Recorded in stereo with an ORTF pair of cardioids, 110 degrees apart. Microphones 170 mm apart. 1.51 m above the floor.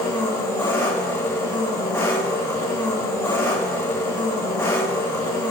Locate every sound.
0.0 s an engine running: 20° left, 3 m